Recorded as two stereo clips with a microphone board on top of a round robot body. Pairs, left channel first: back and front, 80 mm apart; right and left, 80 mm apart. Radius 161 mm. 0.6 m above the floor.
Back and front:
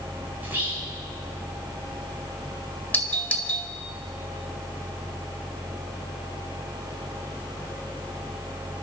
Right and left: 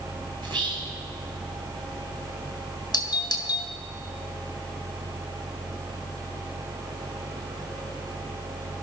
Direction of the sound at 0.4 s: 65° left.